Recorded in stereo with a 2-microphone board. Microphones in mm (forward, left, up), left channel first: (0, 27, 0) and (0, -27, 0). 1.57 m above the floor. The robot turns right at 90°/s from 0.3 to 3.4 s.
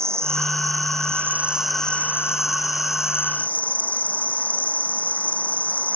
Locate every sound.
0.0 s an insect: 125° right; by 6.0 s 155° left